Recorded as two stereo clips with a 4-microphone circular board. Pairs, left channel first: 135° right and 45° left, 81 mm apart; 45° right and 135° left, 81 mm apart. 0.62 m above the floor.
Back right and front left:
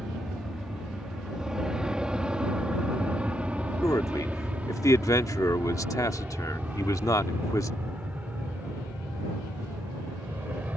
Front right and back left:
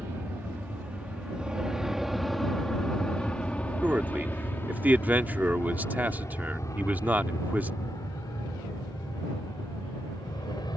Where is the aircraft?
125° left; by 10.8 s 25° right.